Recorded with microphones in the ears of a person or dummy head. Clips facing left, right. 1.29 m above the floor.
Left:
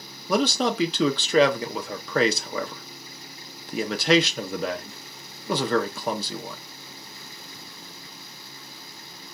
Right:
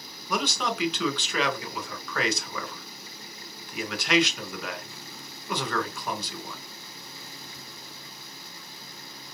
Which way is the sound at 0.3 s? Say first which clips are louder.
Left 7 dB; 25° left (ahead or behind).